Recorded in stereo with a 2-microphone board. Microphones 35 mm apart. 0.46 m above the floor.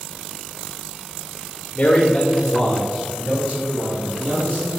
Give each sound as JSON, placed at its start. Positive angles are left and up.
{"t": 1.8, "sound": "a man speaking", "side_deg": 40, "distance_m": 1.3}